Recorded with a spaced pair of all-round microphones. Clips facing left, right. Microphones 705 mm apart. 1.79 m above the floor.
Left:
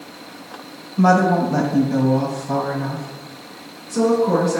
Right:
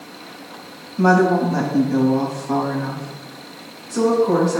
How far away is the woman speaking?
About 1.4 m.